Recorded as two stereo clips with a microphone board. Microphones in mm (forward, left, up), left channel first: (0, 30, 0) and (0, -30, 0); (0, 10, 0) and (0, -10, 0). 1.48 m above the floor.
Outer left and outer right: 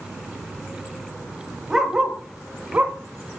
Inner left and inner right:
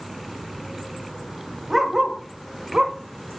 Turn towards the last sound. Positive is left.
turn(degrees=-25)  # may be behind; listen again after turning